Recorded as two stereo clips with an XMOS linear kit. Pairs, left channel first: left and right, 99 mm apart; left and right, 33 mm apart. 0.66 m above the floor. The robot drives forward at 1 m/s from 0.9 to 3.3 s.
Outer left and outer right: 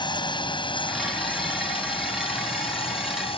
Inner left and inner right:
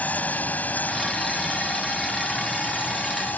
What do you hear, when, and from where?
0.0 s a drone: 55° left (ahead or behind); by 3.4 s 75° left (ahead or behind)